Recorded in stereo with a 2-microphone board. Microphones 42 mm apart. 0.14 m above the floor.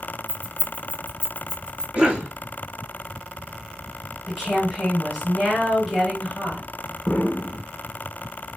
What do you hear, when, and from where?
0.3 s keys jangling: 40° right (ahead or behind), 1.4 m; by 1.8 s 15° right (ahead or behind), 0.8 m
1.9 s a cough: 25° right (ahead or behind), 1.3 m
4.3 s a woman speaking: centre (ahead or behind), 2.5 m
7.1 s an explosion: 20° left (ahead or behind), 0.6 m